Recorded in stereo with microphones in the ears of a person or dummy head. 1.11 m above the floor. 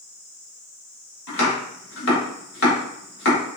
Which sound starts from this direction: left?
Chopping, at 1.3 s.